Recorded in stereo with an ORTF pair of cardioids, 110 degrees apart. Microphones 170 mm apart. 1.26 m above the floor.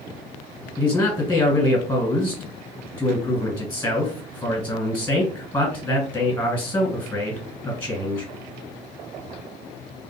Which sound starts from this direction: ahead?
A man speaking, at 0.8 s.